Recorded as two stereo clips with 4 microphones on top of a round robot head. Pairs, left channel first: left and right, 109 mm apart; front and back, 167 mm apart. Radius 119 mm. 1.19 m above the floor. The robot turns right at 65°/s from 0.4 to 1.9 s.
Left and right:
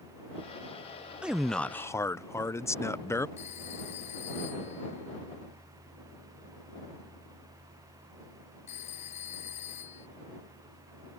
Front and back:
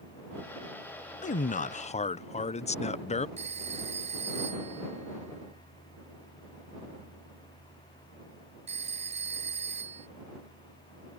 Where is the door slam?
No door slam in this recording.